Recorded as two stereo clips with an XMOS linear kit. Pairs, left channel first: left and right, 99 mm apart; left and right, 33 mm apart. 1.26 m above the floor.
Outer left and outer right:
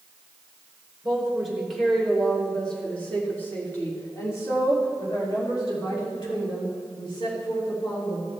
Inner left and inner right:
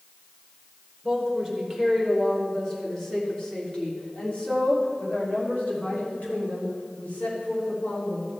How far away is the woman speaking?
About 3.5 m.